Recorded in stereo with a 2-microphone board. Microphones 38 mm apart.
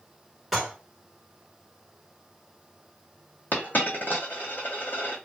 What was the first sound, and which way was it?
Dishes clattering, 10° right (ahead or behind).